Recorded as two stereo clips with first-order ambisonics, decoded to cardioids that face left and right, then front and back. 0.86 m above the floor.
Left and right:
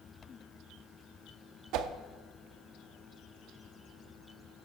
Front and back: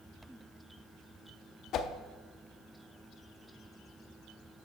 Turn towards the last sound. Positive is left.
turn(degrees=-50)